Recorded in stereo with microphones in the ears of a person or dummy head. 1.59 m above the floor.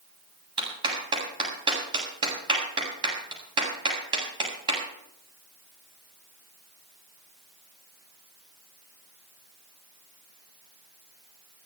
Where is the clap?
25° right (ahead or behind), 8 m.